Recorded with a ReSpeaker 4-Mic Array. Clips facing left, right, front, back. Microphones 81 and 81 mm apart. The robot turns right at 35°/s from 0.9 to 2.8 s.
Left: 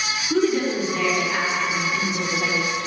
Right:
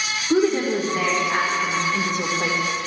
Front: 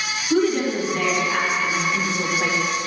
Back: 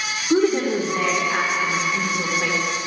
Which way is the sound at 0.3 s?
135° right.